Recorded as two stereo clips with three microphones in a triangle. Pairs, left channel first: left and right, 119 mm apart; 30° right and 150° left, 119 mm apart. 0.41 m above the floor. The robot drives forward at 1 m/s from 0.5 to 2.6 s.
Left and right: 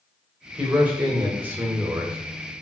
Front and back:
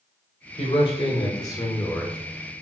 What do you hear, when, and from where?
0.6 s a man speaking: 15° right, 2 m; by 2.2 s 90° right, 1.4 m